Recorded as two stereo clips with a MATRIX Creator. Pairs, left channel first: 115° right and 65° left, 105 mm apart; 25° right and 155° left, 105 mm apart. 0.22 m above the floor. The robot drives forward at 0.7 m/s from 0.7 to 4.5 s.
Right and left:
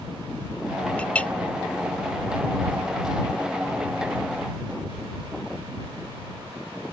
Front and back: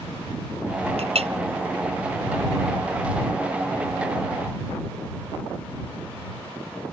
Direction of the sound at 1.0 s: 170° left.